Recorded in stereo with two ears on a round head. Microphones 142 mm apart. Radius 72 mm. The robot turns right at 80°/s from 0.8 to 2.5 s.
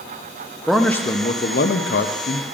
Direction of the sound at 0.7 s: Straight ahead.